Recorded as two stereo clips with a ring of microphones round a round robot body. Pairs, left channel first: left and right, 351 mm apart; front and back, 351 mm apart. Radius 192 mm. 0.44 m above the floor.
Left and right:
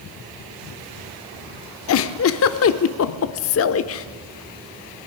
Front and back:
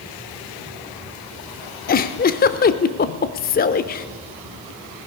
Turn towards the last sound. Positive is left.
turn(degrees=55)